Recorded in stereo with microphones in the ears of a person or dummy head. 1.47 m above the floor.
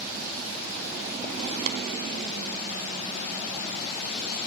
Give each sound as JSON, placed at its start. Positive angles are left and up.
{"t": 1.7, "sound": "tapping", "side_deg": -50}